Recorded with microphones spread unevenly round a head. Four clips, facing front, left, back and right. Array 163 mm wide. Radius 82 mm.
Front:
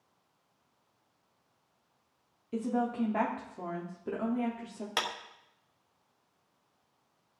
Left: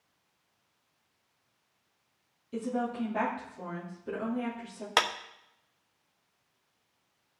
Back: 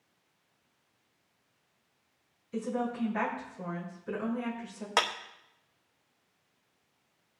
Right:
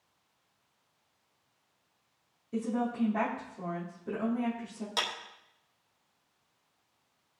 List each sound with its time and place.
2.5 s a woman speaking: 5° right, 3.5 m
5.0 s a clap: 120° left, 0.8 m